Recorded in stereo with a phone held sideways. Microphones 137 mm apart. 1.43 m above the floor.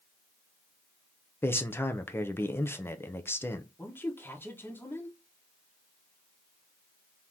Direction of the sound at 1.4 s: 15° left (ahead or behind).